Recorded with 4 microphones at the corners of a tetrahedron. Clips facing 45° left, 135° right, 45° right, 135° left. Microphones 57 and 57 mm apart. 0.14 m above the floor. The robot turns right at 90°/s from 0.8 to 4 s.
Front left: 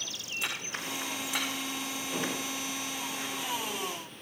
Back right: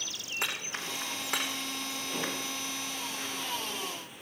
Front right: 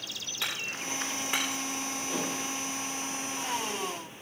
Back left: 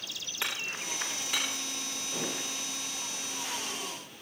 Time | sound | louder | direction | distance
0.4 | hammering | back right 1 dB, even | 160° right | 10 m
2.1 | dishes clattering | front left 2 dB, front right 2 dB | 55° right | 8 m